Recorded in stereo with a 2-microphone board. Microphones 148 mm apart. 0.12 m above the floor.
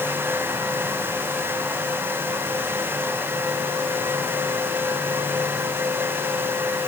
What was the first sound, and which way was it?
Only background noise.